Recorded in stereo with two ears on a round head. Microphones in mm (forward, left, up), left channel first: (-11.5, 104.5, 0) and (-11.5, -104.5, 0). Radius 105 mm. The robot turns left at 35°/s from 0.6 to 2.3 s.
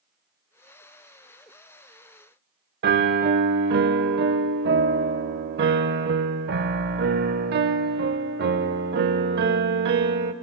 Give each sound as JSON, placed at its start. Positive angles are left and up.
{"t": 2.8, "sound": "a piano", "side_deg": -45, "distance_m": 0.7}